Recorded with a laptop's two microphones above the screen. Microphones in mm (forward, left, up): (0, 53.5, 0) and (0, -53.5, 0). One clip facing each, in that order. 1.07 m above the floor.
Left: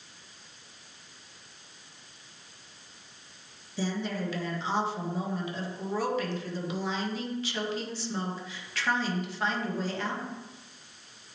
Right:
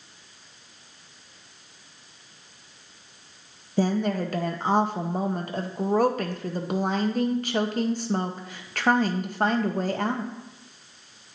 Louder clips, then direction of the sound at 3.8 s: Right 8 dB; 50° right (ahead or behind).